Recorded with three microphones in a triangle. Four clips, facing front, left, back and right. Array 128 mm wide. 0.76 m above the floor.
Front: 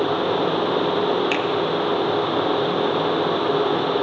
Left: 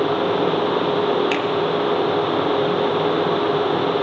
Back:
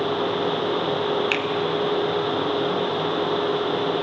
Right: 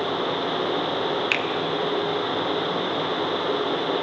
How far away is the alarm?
No alarm in this recording.